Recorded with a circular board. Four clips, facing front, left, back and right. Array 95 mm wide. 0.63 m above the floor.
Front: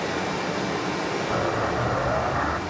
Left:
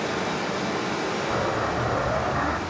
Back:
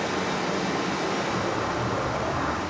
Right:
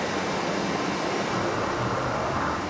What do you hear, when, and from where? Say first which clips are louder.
0.0 s running water: even, even; 120° left, 5.5 m
1.3 s an explosion: left 1 dB, front 2 dB; 50° left, 2.5 m